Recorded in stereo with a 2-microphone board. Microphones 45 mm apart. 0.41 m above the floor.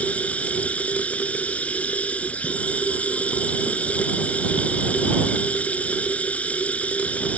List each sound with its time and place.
0.0 s running water: 30° left (ahead or behind)